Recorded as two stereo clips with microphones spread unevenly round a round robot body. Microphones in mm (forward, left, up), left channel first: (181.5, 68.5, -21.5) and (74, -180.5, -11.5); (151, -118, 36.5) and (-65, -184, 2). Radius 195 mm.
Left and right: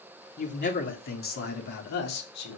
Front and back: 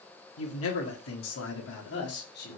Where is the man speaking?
20° left, 2 m; by 2.6 s 80° left, 2.5 m.